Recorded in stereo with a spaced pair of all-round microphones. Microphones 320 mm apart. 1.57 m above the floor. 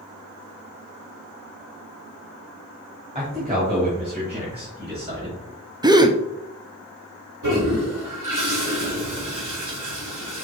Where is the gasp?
15° right (ahead or behind), 0.5 m.